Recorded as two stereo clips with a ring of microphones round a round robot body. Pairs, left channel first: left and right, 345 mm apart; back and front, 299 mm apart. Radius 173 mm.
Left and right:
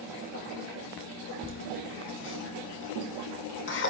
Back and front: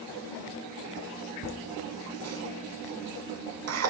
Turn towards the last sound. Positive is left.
turn(degrees=35)